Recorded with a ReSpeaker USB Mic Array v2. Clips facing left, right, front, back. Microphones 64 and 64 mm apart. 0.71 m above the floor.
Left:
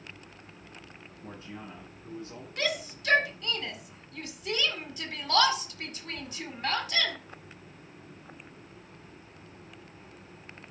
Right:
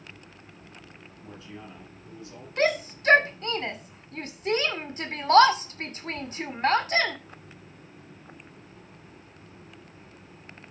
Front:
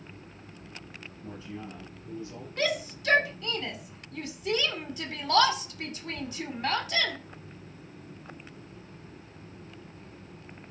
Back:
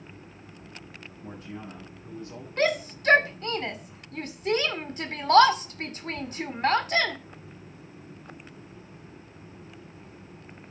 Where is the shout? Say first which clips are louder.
Right 8 dB, back 4 dB; 135° right, 2.0 m.